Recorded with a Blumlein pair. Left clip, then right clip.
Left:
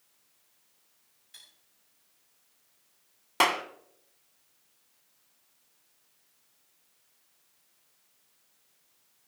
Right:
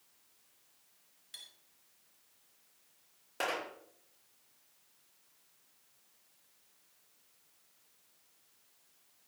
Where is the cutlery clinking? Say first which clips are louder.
Right 3 dB; 30° right, 6 m.